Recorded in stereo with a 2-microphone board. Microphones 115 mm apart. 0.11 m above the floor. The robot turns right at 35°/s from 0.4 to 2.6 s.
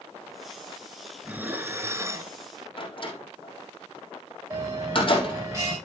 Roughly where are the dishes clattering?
Centre.